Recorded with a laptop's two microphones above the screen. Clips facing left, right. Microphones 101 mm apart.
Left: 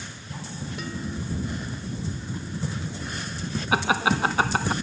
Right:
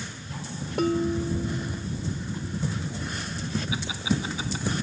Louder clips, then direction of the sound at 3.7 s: Left 9 dB; 65° left (ahead or behind).